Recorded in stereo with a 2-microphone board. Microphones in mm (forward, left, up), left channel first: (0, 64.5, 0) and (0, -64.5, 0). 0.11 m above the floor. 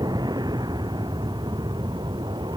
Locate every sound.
0.0 s an aircraft: 30° right (ahead or behind); by 2.6 s 35° right (ahead or behind)